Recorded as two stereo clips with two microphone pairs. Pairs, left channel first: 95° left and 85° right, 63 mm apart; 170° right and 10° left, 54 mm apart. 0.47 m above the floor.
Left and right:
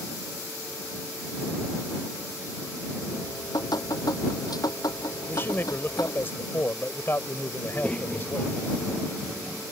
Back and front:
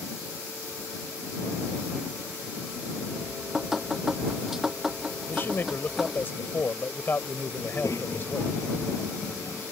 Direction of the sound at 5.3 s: 145° left.